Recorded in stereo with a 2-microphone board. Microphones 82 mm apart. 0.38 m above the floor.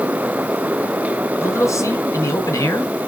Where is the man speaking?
40° left (ahead or behind), 3 m.